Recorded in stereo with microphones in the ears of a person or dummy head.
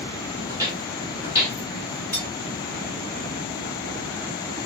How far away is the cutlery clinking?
About 2 m.